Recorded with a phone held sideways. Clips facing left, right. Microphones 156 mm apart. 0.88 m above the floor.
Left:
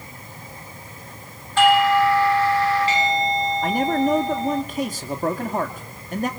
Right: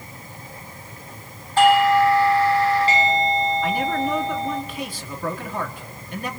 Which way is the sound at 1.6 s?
35° right (ahead or behind).